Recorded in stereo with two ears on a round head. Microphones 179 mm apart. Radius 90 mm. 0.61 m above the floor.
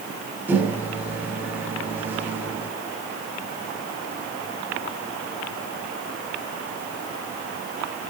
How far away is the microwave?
About 1.8 m.